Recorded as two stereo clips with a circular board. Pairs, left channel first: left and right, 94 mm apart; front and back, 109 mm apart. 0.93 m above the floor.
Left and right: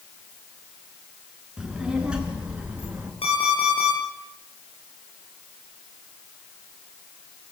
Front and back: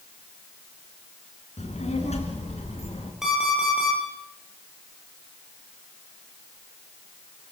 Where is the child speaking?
5° right, 6 m; by 3.1 s 15° right, 6 m.